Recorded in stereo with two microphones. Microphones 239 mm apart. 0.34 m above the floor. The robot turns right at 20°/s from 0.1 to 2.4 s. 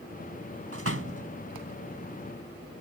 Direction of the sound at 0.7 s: 70° right (ahead or behind).